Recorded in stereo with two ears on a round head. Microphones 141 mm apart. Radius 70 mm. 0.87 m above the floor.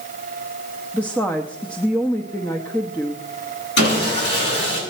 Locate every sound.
0.9 s a woman speaking: 10° left (ahead or behind), 0.9 m
3.8 s sawing: 70° left (ahead or behind), 7.5 m